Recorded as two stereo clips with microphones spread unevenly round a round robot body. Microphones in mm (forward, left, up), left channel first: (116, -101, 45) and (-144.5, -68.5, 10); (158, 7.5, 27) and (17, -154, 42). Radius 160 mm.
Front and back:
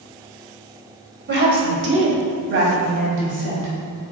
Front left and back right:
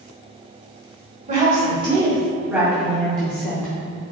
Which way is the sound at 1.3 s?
Straight behind.